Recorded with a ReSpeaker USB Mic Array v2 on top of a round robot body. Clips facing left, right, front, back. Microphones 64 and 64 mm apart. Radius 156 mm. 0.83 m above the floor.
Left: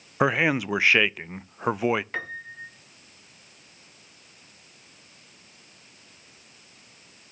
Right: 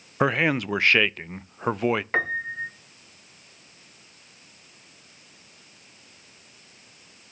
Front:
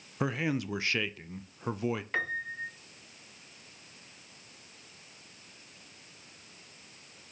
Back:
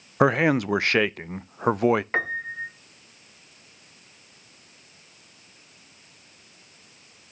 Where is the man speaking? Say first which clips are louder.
Even, back 12 dB; 170° left, 0.6 m.